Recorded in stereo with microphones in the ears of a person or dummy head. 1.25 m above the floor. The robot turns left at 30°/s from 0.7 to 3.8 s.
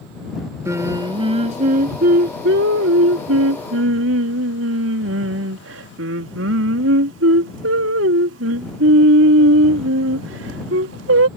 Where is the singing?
15° right; by 11.3 s 110° right.